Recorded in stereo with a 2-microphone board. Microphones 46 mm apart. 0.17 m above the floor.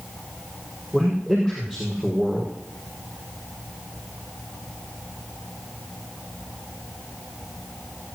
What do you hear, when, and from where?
0.9 s a man speaking: 10° right (ahead or behind), 5 m